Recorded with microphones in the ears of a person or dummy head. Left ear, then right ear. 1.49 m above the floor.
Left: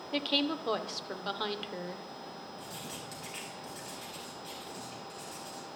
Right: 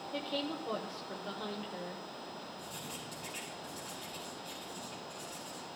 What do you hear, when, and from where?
0.1 s a woman speaking: 60° left (ahead or behind), 0.9 m
2.6 s writing: 15° left (ahead or behind), 3.5 m